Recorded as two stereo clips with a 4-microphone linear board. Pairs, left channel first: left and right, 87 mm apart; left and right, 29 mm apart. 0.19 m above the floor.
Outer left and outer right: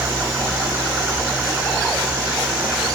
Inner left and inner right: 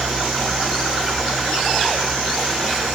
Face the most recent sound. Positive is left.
turn(degrees=-15)  # may be behind; listen again after turning